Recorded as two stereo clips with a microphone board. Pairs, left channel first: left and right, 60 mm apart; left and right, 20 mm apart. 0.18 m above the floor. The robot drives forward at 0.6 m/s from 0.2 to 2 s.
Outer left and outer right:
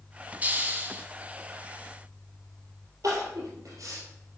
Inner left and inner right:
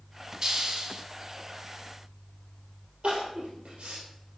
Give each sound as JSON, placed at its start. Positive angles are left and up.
{"t": 0.4, "sound": "a hiss", "side_deg": -25, "distance_m": 0.8}
{"t": 3.0, "sound": "crying", "side_deg": -65, "distance_m": 3.0}